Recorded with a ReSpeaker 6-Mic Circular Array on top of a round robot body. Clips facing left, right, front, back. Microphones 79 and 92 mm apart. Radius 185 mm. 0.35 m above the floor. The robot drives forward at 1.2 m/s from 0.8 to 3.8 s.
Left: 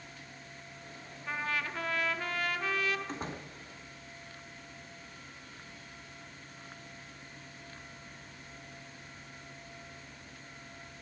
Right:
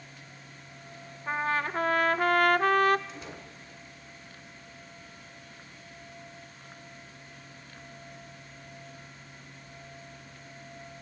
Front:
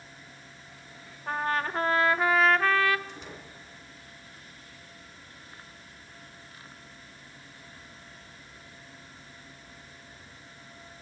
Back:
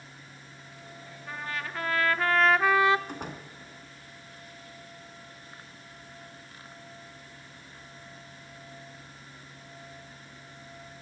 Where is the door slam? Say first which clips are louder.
Left 3 dB, back 5 dB; 140° left, 3.5 m; by 3.5 s 145° left, 4 m.